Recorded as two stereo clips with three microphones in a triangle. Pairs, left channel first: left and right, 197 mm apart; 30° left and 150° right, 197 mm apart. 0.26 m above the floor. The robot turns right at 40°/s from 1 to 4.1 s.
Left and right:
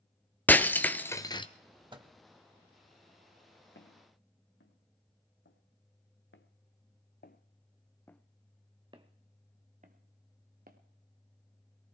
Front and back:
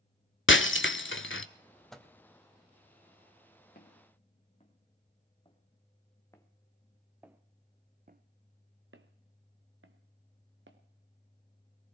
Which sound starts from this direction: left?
Footsteps, at 3.8 s.